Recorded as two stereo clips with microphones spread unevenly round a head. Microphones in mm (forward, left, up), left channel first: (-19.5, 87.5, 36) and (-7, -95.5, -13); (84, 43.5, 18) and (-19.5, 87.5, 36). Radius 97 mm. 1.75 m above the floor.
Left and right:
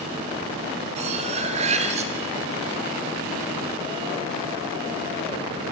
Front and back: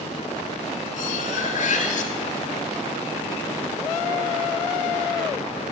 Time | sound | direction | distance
1.0 | cutlery clinking | 25° right | 2 m